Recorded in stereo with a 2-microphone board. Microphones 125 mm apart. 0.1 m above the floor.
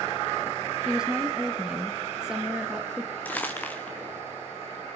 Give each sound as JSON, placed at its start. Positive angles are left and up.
{"t": 0.8, "sound": "a woman speaking", "side_deg": -5, "distance_m": 2.0}
{"t": 3.2, "sound": "crumpling", "side_deg": 15, "distance_m": 3.0}